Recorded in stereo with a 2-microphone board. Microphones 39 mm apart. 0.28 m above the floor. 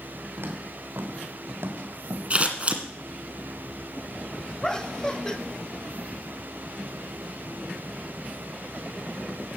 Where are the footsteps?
75° right (ahead or behind), 3.5 m.